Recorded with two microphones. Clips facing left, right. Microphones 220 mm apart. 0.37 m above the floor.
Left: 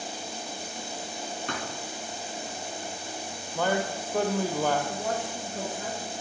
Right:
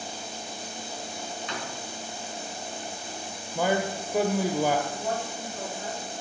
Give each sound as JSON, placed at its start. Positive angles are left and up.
{"t": 1.5, "sound": "a thud", "side_deg": 55, "distance_m": 2.0}
{"t": 3.5, "sound": "a man speaking", "side_deg": -10, "distance_m": 1.1}
{"t": 4.9, "sound": "a woman speaking", "side_deg": 75, "distance_m": 6.0}